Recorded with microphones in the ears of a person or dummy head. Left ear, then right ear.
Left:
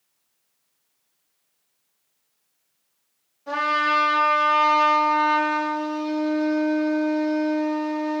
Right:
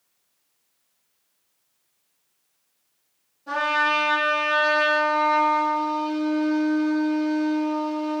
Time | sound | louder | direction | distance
3.5 | a trumpet | even | 40° left (ahead or behind) | 1.3 m